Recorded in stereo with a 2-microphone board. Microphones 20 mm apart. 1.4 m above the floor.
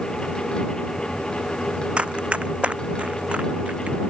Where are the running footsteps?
65° right (ahead or behind); by 4.0 s 80° right.